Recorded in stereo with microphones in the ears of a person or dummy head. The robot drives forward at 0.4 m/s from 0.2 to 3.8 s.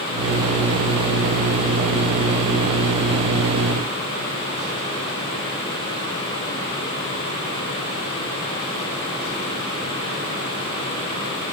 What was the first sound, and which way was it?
Only background noise.